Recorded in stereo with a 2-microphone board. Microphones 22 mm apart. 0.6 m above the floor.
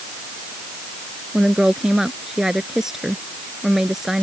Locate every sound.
1.3 s a woman speaking: 20° right (ahead or behind)